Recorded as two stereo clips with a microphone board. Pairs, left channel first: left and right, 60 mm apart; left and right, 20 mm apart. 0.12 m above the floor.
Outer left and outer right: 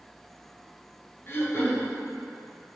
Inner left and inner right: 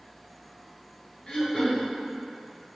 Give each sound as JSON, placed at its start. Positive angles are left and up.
{"t": 1.3, "sound": "throat clearing", "side_deg": 40, "distance_m": 0.9}